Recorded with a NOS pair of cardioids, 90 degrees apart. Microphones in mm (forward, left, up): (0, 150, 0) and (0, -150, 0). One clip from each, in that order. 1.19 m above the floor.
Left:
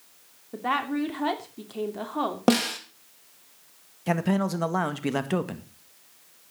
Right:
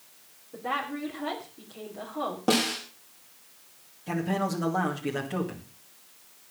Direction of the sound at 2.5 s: 65° left.